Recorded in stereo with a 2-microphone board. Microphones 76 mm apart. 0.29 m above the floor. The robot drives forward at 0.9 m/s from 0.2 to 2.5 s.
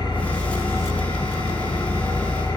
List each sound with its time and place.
0.0 s an engine running: 65° left (ahead or behind), 3 m